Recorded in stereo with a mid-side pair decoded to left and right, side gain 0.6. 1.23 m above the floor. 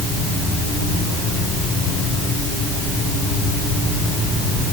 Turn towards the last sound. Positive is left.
No sound to turn to.